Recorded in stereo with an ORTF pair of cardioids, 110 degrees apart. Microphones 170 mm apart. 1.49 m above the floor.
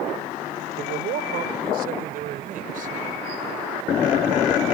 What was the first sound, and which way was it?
A man speaking, 70° right.